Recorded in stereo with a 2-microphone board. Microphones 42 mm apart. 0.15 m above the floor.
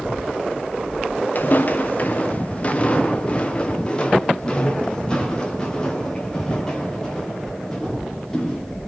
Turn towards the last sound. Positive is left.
turn(degrees=10)  # may be behind; listen again after turning